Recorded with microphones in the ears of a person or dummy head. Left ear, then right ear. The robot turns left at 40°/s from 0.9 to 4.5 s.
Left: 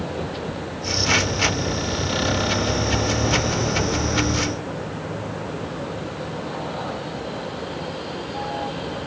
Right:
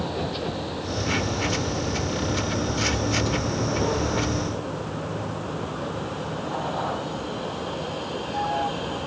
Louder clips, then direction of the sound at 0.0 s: Even; 20° right.